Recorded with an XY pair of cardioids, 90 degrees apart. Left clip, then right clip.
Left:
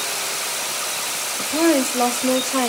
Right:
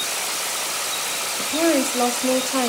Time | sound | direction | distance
1.4 | a woman speaking | 5° left | 5 m